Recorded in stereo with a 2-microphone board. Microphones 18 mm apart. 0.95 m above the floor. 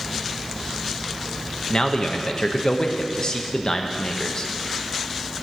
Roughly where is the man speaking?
Left.